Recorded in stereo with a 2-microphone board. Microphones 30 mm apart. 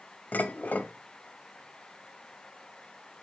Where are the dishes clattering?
70° left (ahead or behind), 1.7 m.